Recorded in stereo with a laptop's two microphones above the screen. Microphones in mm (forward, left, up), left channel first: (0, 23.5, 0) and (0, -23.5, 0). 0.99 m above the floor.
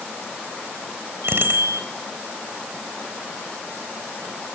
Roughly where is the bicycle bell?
Right.